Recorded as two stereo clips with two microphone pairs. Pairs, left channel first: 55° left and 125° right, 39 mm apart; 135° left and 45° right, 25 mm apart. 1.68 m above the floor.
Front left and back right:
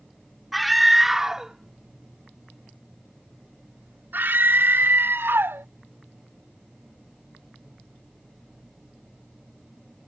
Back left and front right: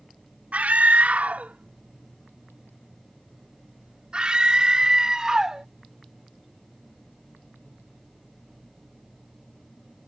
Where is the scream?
35° right; by 5.7 s 115° right.